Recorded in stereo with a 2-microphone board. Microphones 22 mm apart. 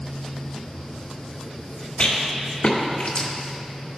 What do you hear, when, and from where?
2.0 s a rattle: 65° left (ahead or behind), 1.7 m